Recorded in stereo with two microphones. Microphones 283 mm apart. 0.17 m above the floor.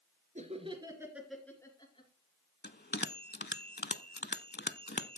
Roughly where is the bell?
Left.